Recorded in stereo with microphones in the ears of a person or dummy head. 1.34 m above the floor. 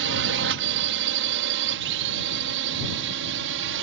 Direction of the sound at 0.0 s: 60° right (ahead or behind).